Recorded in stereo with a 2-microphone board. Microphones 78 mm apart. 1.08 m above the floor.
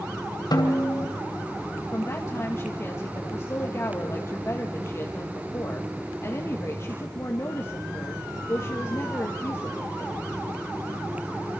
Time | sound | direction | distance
0.5 | a snare drum | 70° left (ahead or behind) | 2.5 m
1.9 | a woman speaking | 40° left (ahead or behind) | 1.6 m